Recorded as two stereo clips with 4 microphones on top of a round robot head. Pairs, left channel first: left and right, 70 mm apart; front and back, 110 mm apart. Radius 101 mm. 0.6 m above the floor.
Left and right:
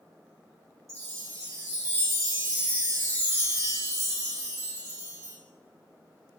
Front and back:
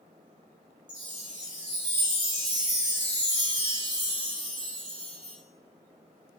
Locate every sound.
0.9 s a chime: 135° right, 5 m